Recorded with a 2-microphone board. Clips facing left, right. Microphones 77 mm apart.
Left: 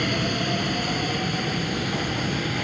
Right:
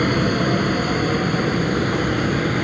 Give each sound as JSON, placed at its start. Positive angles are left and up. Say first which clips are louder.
{"t": 0.0, "sound": "an aircraft", "louder": "right 7 dB", "side_deg": -40}